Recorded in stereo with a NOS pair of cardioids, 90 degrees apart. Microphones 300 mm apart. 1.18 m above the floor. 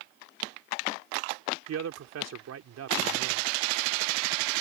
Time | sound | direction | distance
1.7 | a man speaking | 60° right | ?